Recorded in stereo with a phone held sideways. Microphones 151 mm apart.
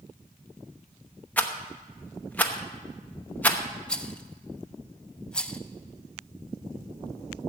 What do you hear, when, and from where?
1.4 s a rattle: 10° left (ahead or behind), 0.9 m
3.9 s a rattle: 5° left (ahead or behind), 0.5 m